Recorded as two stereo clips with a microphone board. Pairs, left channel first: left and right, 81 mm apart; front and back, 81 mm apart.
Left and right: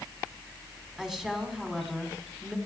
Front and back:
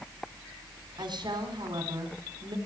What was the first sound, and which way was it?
A woman speaking, 175° right.